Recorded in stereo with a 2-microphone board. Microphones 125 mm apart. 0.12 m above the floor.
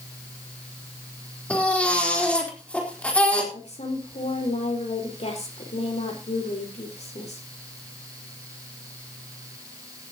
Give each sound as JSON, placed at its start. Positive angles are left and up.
{"t": 1.5, "sound": "a baby crying", "side_deg": 10, "distance_m": 4.0}
{"t": 3.5, "sound": "a woman speaking", "side_deg": 65, "distance_m": 4.5}